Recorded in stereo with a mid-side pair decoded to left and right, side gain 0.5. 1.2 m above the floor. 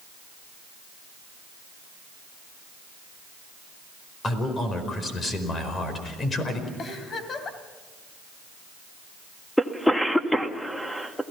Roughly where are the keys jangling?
I don't hear keys jangling.